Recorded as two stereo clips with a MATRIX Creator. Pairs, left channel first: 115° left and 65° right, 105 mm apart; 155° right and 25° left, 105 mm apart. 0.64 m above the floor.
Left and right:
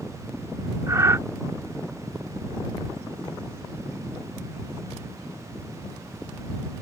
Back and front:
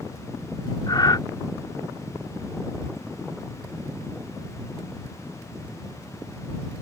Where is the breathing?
120° right.